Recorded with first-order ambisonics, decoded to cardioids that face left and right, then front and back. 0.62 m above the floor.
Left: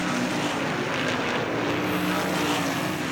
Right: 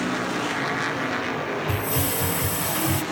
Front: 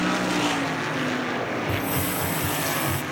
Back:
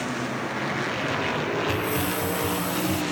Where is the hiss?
80° right, 0.6 m.